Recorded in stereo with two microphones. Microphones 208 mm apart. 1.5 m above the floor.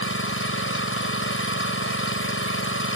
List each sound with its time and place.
0.0 s an engine running: 85° left